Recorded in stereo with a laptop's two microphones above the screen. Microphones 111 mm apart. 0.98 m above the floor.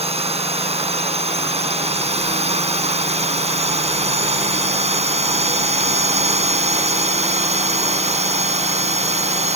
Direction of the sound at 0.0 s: 70° right (ahead or behind).